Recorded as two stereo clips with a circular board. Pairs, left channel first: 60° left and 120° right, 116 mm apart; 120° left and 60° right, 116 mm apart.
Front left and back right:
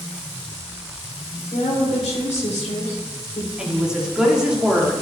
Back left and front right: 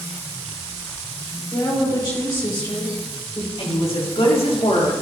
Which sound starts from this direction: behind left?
A woman speaking, at 3.6 s.